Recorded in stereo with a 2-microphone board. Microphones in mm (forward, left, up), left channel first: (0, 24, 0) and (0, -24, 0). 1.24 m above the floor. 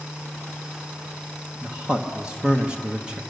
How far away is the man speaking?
About 1.1 m.